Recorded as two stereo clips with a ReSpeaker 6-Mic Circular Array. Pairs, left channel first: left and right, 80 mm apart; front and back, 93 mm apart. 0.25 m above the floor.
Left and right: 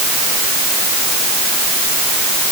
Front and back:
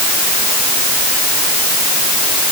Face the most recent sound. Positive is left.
No sound to turn to.